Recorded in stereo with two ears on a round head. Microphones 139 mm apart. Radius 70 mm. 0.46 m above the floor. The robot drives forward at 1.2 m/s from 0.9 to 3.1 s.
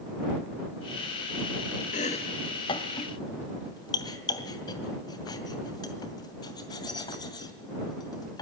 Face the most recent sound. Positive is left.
turn(degrees=25)  # may be behind; listen again after turning